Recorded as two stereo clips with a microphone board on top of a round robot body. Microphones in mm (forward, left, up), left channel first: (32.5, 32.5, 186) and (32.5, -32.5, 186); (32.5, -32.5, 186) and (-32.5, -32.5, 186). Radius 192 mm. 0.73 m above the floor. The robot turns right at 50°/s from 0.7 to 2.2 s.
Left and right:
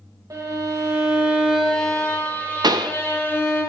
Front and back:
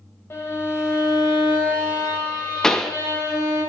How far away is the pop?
About 0.7 m.